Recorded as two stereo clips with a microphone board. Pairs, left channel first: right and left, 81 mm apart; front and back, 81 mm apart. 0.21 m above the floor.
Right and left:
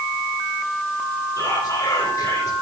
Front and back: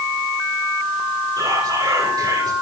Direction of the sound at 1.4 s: 145° right.